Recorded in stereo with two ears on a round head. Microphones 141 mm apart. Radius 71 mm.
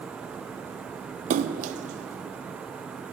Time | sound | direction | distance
1.3 | a splash | 45° right (ahead or behind) | 0.5 m